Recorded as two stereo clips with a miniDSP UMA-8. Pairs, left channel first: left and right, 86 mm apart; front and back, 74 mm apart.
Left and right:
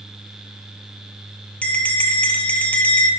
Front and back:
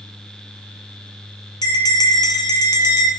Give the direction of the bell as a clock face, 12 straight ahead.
11 o'clock.